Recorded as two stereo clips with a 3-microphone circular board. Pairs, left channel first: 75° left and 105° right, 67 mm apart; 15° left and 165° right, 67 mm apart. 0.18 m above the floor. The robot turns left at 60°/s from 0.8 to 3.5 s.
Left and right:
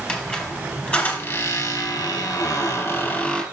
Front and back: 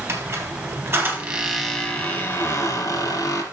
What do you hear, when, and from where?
0.1 s a squeak: 145° left, 3 m; by 3.4 s 10° right, 3 m